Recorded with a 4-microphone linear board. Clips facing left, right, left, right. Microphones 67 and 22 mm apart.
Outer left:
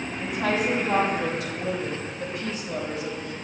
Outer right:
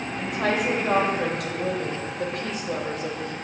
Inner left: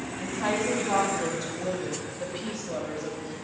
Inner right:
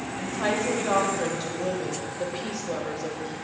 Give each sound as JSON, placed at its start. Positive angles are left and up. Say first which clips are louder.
{"t": 0.2, "sound": "a woman speaking", "louder": "outer right 1 dB, inner right 1 dB", "side_deg": -65, "distance_m": 4.0}